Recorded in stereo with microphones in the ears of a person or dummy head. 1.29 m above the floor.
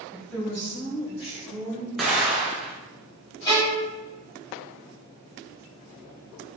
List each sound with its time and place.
0.1 s a woman speaking: 5° right (ahead or behind), 1.2 m; by 1.9 s 35° left (ahead or behind), 3 m
2.0 s an explosion: centre (ahead or behind), 0.7 m
3.5 s a violin: 20° left (ahead or behind), 2.0 m